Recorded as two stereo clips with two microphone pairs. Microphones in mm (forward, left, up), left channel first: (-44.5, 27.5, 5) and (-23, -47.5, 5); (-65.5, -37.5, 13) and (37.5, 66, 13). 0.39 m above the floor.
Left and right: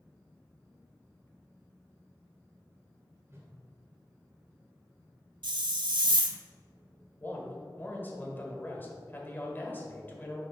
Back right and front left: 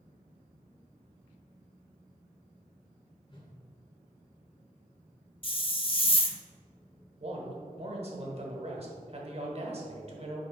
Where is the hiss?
85° right, 0.5 m.